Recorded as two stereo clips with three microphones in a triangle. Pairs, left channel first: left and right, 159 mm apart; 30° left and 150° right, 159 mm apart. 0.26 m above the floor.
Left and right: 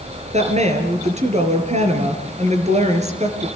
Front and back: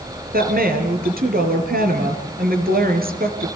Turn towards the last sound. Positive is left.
turn(degrees=-135)